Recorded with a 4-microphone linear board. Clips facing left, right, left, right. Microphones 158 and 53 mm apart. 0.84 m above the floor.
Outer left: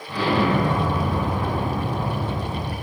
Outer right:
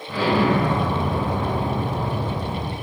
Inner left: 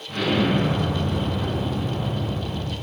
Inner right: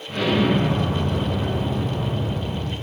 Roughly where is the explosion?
Centre.